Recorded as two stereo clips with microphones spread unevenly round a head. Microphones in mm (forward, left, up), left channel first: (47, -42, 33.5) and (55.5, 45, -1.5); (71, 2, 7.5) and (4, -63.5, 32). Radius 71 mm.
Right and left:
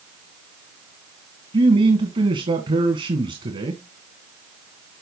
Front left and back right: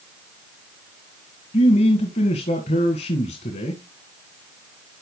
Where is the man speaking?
65° left, 1.8 m.